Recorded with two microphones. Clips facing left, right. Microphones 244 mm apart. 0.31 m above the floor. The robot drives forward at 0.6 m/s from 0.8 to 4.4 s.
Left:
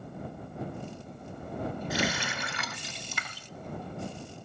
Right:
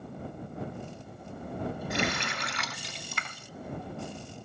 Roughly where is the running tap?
Centre.